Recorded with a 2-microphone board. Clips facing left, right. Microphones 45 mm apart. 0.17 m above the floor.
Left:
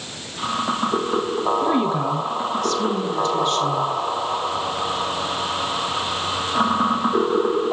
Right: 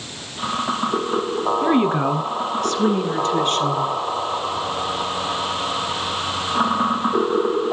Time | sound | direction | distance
1.6 | a woman speaking | 35° right (ahead or behind) | 1.5 m